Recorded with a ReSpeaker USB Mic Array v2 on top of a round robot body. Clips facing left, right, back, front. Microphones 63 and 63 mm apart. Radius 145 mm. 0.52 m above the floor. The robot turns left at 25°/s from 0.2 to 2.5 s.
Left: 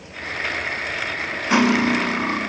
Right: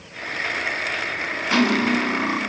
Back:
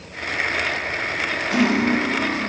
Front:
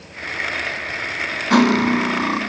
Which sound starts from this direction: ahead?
Cutlery clinking, at 1.5 s.